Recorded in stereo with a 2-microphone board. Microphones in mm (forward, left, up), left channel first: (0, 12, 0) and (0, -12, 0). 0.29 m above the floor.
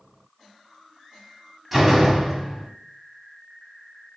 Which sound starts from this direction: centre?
A door slam, at 1.7 s.